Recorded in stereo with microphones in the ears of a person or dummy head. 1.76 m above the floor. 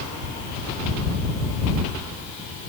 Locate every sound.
Only background noise.